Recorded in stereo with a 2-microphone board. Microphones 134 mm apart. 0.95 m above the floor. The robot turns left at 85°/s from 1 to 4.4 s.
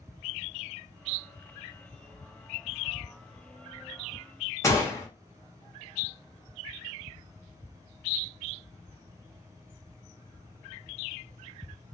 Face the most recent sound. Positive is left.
turn(degrees=25)  # may be behind; listen again after turning